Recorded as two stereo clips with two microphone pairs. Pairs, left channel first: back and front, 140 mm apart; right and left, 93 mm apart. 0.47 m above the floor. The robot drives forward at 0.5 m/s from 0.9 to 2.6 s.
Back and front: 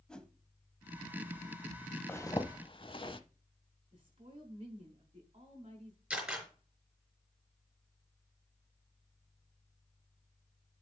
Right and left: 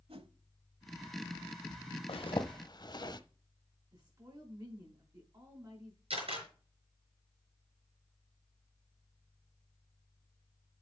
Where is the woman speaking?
50° left, 3.5 m.